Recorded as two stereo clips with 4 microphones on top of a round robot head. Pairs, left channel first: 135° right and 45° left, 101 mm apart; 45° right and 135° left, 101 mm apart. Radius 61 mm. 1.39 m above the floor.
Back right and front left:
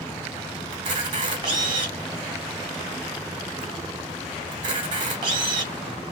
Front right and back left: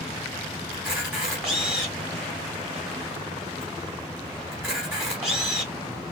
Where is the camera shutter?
55° left, 1.2 m.